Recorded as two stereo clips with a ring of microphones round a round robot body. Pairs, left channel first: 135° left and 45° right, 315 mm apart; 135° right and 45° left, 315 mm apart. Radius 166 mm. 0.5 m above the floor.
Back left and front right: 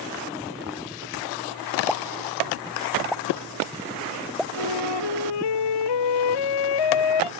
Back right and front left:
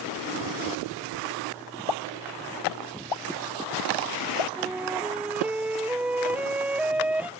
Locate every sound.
1.9 s a pop: 135° right
4.6 s a flute: 130° left